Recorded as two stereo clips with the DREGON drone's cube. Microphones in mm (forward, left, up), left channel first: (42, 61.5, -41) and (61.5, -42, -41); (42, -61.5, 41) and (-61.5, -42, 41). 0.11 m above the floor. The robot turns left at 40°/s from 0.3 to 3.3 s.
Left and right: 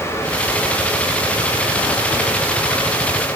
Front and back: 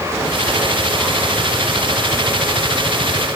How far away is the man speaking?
I don't hear a man speaking.